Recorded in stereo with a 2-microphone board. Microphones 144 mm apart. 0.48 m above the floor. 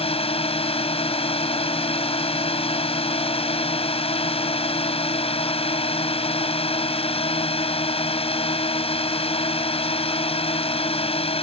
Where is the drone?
40° left (ahead or behind).